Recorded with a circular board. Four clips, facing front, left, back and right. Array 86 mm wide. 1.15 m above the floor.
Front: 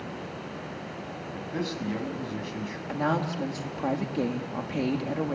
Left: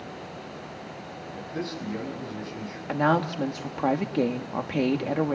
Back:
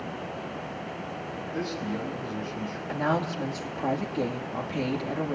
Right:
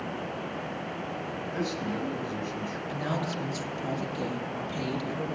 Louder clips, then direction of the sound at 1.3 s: Even, front 1 dB; 10° right.